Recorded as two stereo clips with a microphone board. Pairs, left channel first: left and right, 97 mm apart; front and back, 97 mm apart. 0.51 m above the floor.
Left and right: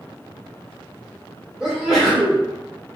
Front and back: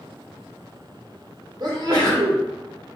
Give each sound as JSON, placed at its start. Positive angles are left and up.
{"t": 1.6, "sound": "a sneeze", "azimuth_deg": -170, "distance_m": 1.4}